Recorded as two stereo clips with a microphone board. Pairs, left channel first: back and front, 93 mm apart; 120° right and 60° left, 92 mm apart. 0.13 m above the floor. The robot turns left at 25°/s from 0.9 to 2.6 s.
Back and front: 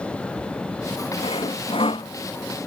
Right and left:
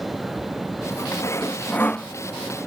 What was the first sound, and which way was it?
Sawing, 175° right.